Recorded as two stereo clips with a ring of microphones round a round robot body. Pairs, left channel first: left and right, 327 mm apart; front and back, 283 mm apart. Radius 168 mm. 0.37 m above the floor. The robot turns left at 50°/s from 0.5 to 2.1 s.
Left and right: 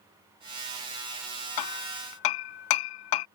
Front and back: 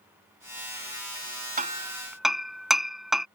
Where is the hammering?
120° left; by 3.3 s 90° left.